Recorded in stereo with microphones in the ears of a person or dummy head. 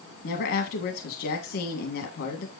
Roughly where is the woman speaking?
Left.